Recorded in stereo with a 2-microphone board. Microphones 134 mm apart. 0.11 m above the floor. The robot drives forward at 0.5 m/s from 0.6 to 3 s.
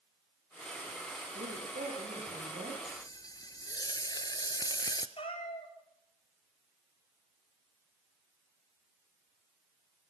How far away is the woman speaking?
About 8.5 m.